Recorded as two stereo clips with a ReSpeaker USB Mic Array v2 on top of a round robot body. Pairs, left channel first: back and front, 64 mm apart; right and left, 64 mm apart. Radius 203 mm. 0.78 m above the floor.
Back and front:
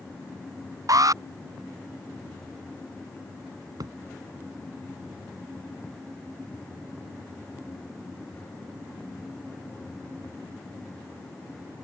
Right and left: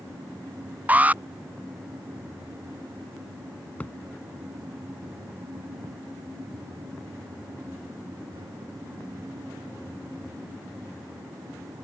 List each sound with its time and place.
0.9 s an alarm: 25° left
3.8 s a thud: 25° right